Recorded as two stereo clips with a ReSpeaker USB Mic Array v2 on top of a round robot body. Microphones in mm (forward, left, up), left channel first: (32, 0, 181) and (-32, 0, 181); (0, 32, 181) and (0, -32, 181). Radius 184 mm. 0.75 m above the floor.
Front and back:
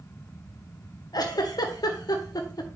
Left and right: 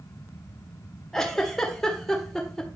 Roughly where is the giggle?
Ahead.